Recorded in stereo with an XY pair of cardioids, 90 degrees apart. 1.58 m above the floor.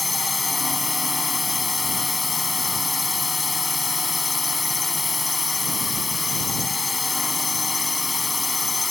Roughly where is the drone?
Ahead.